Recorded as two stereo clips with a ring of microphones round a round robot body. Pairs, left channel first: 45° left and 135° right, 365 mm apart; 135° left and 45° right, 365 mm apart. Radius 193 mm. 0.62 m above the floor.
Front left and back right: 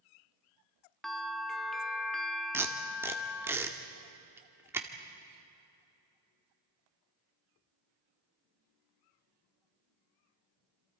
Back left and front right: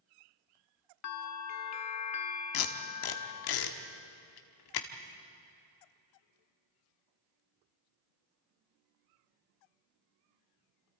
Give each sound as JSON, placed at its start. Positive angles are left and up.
{"t": 1.0, "sound": "a bell", "azimuth_deg": 135, "distance_m": 1.2}
{"t": 2.5, "sound": "tape being pulled", "azimuth_deg": 140, "distance_m": 1.5}